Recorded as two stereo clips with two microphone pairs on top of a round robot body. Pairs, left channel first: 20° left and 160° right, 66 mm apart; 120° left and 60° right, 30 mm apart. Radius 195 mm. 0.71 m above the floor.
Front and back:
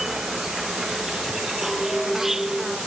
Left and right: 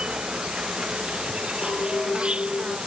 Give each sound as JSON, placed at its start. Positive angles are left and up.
{"t": 0.0, "sound": "an insect", "azimuth_deg": -80}
{"t": 1.6, "sound": "a clink", "azimuth_deg": 110}